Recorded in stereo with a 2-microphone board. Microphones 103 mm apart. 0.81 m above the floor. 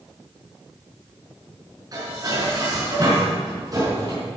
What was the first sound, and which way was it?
Dishes clattering, 40° right (ahead or behind).